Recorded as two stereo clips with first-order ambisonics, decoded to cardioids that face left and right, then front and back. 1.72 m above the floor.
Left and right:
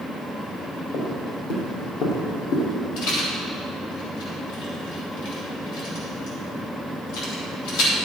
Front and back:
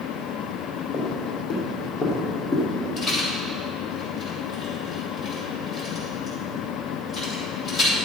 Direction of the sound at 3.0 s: 85° left.